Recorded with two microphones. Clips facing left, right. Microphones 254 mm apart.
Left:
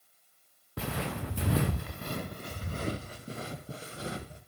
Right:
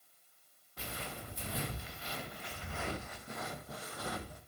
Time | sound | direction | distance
0.8 | footsteps | 70° left (ahead or behind) | 0.8 m